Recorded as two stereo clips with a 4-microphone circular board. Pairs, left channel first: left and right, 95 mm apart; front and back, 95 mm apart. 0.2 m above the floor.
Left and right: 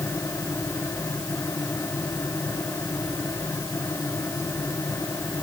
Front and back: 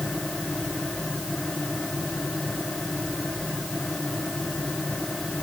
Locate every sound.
Only background noise.